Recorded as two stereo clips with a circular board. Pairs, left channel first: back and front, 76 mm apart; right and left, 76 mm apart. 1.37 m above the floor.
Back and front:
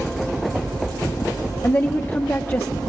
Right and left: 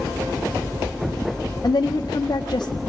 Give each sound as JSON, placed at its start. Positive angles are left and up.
{"t": 1.6, "sound": "a woman speaking", "azimuth_deg": -120, "distance_m": 0.6}